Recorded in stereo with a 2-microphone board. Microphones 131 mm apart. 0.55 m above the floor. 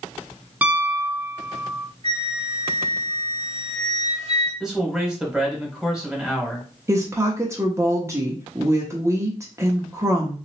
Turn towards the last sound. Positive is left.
turn(degrees=-20)  # may be behind; listen again after turning